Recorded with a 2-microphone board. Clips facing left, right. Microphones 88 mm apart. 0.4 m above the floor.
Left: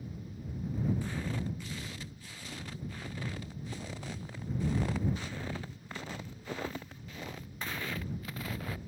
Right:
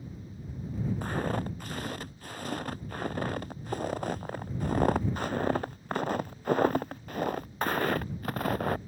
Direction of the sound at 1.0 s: 50° right (ahead or behind).